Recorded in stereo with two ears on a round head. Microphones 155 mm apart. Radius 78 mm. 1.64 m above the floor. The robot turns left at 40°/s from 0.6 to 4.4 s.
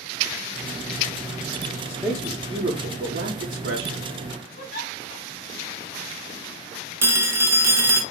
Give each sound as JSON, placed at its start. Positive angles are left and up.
{"t": 1.9, "sound": "a man speaking", "azimuth_deg": -5, "distance_m": 0.8}
{"t": 4.6, "sound": "a giggle", "side_deg": 50, "distance_m": 1.6}
{"t": 7.0, "sound": "a phone ringing", "side_deg": -15, "distance_m": 0.7}